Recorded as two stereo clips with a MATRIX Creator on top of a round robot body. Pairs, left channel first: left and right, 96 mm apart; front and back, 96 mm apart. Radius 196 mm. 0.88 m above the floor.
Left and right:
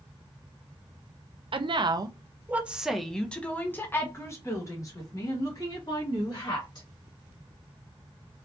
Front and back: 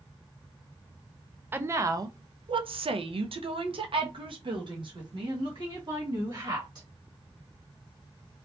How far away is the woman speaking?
About 0.8 m.